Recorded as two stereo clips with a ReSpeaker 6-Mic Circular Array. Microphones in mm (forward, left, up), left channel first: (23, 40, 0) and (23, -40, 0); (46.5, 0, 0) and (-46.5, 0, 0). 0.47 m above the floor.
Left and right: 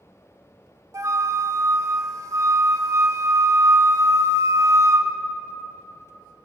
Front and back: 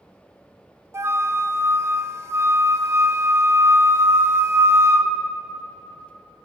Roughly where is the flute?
Behind right.